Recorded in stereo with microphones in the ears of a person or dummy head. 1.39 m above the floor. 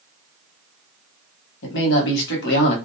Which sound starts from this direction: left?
A man speaking, at 1.6 s.